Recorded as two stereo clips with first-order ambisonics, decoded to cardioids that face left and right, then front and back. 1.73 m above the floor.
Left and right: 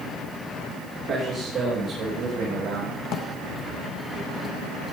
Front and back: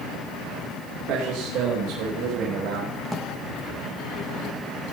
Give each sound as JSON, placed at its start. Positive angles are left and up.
{"t": 1.1, "sound": "a man speaking", "azimuth_deg": -165, "distance_m": 3.5}
{"t": 3.0, "sound": "a drawer", "azimuth_deg": 90, "distance_m": 1.2}